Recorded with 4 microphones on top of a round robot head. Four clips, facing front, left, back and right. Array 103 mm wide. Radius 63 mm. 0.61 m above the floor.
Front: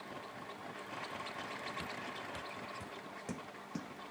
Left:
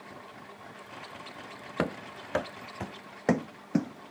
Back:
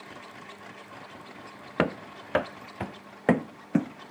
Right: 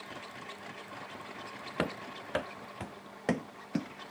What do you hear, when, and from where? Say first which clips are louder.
1.8 s running footsteps: left 3 dB, back 15 dB; 165° left; by 4.1 s 150° left